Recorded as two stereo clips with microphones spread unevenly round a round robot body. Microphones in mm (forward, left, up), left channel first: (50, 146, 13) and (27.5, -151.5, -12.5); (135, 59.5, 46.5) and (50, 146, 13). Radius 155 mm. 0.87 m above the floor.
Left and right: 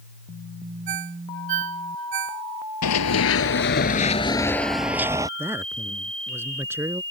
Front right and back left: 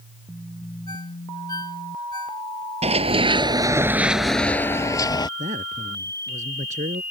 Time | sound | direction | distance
0.9 | a ringtone | 120° right | ?
2.8 | running footsteps | 100° left | ?
5.4 | a man speaking | straight behind | ?